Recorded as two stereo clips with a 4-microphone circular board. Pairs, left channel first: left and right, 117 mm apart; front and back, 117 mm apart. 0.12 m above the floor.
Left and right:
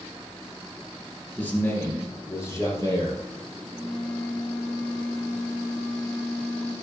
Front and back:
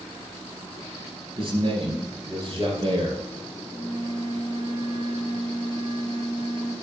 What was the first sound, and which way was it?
A man speaking, 165° left.